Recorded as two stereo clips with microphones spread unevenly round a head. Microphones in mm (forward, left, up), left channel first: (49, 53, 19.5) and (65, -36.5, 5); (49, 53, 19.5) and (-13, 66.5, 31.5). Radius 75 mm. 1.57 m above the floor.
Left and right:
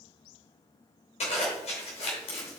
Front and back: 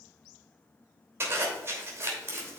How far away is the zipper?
About 3 m.